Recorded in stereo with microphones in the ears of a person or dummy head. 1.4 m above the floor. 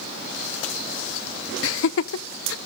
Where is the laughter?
75° left (ahead or behind), 0.6 m.